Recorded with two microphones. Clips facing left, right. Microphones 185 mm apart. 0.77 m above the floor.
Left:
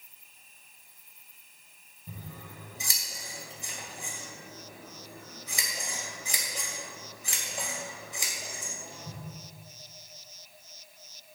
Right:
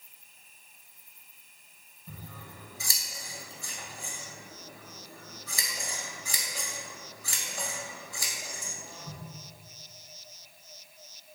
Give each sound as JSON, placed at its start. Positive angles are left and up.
{"t": 2.1, "sound": "scissors", "side_deg": 20, "distance_m": 2.5}